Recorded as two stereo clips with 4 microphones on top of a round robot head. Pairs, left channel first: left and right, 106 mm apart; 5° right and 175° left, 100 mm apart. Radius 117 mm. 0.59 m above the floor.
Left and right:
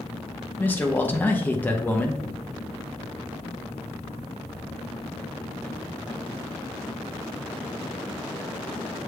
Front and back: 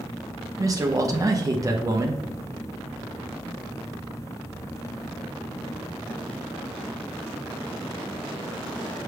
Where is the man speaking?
155° left, 0.8 m.